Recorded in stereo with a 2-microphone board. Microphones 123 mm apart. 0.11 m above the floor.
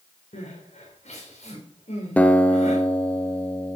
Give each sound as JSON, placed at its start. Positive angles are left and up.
{"t": 0.3, "sound": "crying", "side_deg": 65, "distance_m": 5.5}
{"t": 2.2, "sound": "a guitar", "side_deg": 15, "distance_m": 0.8}